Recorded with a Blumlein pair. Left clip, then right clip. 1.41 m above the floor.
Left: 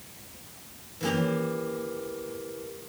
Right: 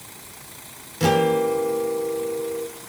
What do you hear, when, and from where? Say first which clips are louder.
1.0 s a guitar: right 10 dB; 30° right, 2.5 m